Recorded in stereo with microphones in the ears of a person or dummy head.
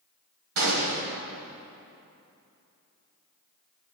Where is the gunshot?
65° right (ahead or behind), 4 m.